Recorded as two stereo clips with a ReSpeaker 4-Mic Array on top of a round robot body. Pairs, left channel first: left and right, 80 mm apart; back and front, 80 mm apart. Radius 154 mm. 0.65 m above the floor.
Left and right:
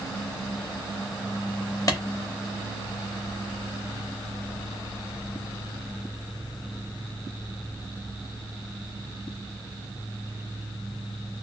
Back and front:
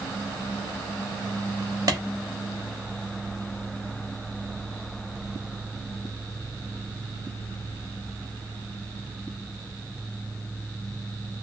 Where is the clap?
40° left, 1.1 m.